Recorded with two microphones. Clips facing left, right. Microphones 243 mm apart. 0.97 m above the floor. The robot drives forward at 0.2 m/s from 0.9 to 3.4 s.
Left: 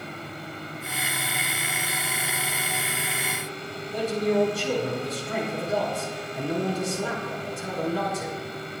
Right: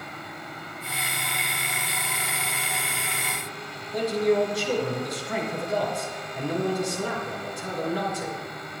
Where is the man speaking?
35° left (ahead or behind), 4 m.